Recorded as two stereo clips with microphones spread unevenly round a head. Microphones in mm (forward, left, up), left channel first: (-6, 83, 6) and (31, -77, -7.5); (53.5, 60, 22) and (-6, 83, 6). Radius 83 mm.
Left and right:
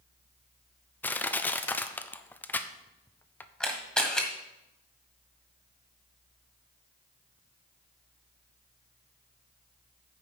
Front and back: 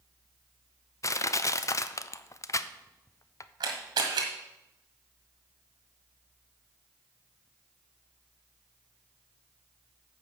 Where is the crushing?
25° left, 0.6 m.